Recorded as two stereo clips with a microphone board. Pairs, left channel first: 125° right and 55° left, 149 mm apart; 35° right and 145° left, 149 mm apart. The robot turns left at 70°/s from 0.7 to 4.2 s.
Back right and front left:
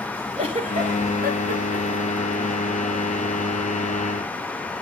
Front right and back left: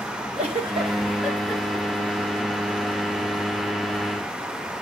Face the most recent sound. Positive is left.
turn(degrees=-145)